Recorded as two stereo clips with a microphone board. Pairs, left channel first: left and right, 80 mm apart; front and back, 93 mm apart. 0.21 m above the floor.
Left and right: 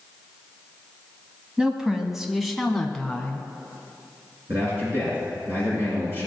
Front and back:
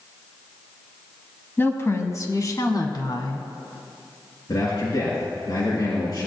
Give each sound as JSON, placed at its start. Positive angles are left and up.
{"t": 1.6, "sound": "a woman speaking", "azimuth_deg": -30, "distance_m": 1.1}
{"t": 4.5, "sound": "a man speaking", "azimuth_deg": -40, "distance_m": 2.5}